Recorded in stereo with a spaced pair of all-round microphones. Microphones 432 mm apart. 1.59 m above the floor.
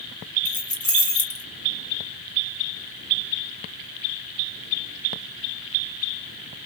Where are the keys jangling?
40° left (ahead or behind), 1.6 m.